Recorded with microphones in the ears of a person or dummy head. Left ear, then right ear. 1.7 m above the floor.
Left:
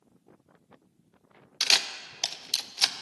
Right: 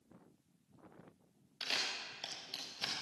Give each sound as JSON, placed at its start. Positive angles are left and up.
{"t": 1.6, "sound": "a camera shutter", "side_deg": 50, "distance_m": 1.0}